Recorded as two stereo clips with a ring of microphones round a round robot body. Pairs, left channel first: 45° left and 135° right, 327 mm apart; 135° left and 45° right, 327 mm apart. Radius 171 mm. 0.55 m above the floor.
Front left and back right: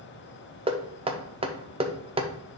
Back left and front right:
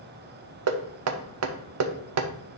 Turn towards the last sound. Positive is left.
turn(degrees=-65)